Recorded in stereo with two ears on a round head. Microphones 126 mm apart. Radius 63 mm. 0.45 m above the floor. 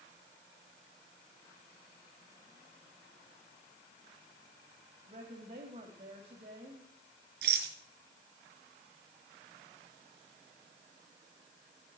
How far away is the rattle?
About 4.5 m.